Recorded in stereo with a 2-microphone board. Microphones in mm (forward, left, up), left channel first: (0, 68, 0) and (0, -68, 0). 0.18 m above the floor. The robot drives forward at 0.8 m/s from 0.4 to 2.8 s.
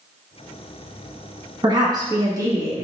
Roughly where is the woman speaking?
Right.